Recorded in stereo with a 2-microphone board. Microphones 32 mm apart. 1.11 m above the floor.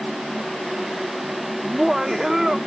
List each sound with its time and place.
1.6 s laughter: 15° right (ahead or behind)